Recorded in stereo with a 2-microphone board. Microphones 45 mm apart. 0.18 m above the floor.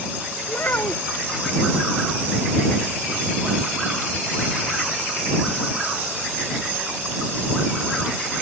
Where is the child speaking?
45° left (ahead or behind).